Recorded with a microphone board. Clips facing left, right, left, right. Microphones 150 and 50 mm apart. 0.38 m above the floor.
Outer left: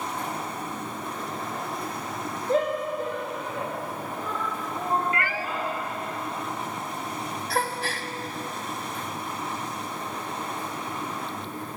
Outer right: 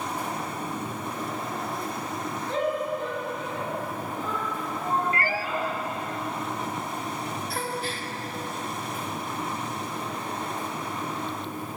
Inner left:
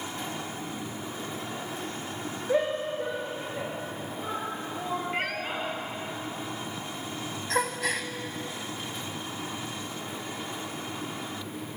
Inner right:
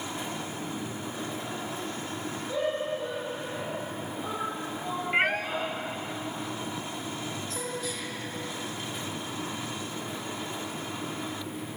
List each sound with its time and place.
2.5 s a shout: 40° left (ahead or behind), 7.5 m
5.1 s a cat meowing: 35° right (ahead or behind), 0.6 m
7.5 s a gasp: 75° left (ahead or behind), 1.1 m